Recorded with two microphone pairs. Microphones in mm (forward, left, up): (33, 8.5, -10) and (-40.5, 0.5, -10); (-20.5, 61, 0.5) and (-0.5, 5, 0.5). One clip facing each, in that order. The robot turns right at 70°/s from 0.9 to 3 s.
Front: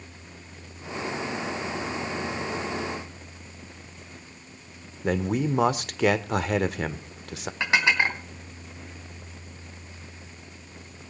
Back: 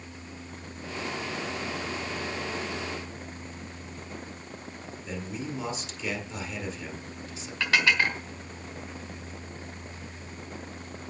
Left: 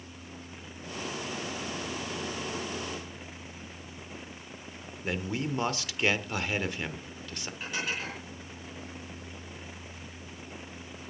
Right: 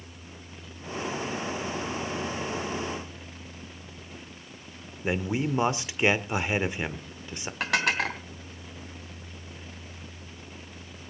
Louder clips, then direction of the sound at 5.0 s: Front 11 dB, right 5 dB; straight ahead.